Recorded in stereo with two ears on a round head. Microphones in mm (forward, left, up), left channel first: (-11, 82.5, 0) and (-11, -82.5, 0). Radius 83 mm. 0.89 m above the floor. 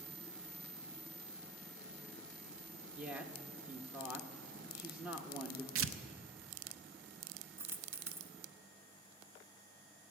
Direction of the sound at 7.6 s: 15° right (ahead or behind).